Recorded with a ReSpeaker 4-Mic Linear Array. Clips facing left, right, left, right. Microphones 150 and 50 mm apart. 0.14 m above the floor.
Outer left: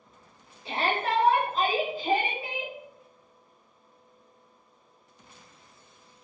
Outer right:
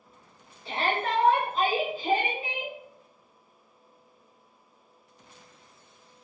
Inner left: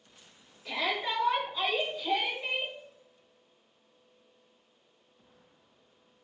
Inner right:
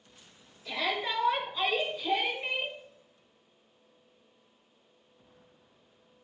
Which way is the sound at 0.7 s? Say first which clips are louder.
Even, even; 15° left (ahead or behind).